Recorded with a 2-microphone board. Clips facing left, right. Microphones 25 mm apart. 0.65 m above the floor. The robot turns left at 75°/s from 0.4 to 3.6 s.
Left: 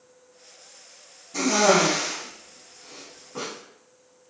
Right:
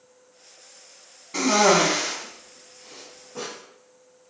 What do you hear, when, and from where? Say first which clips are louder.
1.3 s a cough: right 1 dB; 40° right (ahead or behind), 0.7 m; by 3.5 s 30° left (ahead or behind), 0.7 m